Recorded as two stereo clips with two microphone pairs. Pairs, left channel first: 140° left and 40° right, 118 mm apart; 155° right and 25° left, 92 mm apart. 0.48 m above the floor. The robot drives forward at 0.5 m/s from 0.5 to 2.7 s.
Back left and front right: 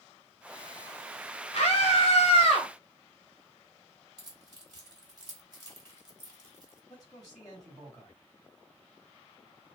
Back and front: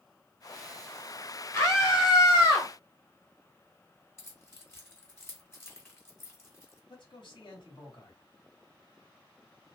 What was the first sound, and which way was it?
A scream, 150° left.